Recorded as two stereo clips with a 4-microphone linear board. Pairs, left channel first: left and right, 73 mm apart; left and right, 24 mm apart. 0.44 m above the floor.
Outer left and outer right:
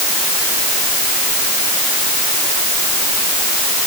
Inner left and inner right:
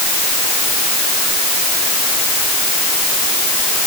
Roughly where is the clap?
I don't hear a clap.